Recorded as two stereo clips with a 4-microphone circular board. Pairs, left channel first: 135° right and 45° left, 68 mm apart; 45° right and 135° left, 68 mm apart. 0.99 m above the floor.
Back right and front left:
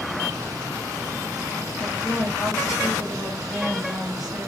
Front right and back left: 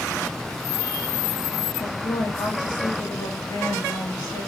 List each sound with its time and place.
1.8 s a woman speaking: 35° right, 1.5 m